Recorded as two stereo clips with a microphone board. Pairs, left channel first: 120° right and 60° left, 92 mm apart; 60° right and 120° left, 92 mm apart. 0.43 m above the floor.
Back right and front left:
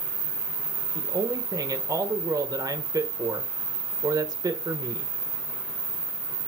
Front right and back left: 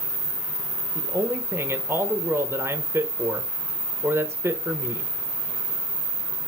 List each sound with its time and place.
0.9 s a man speaking: 70° left, 1.2 m